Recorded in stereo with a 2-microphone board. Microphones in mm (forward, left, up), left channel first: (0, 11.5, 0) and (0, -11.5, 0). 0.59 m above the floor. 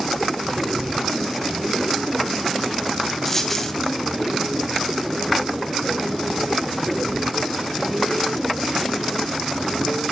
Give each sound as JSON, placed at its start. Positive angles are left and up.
{"t": 3.2, "sound": "a dropped coin", "side_deg": 10, "distance_m": 1.8}